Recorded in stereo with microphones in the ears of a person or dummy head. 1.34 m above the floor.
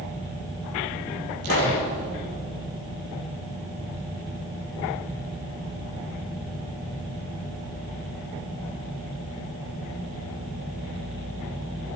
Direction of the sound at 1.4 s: 85° right.